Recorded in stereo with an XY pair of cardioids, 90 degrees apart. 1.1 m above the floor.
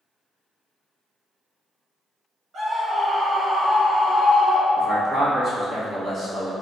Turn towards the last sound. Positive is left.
turn(degrees=-40)